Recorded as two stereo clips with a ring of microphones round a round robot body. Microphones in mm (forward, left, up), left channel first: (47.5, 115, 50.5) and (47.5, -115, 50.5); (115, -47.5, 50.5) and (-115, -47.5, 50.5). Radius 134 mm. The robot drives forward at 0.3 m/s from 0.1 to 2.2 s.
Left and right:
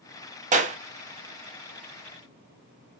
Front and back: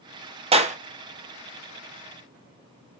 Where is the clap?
130° right, 0.6 m; by 0.8 s 135° right, 0.6 m.